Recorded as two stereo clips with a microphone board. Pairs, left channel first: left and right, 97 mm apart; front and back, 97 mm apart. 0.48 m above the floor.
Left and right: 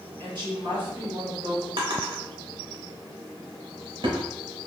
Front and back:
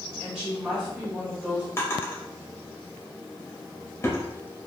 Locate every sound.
0.2 s a woman speaking: 100° right, 1.8 m
1.8 s a drawer: 60° right, 0.8 m